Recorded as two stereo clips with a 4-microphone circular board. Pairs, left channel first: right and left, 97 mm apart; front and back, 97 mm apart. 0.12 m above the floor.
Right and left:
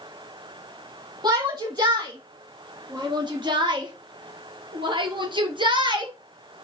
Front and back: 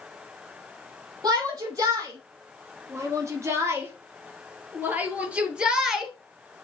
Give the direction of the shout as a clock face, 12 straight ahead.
8 o'clock.